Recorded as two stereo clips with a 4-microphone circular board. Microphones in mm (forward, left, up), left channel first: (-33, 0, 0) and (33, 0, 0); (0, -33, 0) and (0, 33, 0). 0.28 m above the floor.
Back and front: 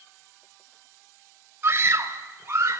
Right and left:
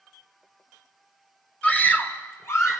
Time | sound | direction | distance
1.6 | a scream | 25° right | 1.3 m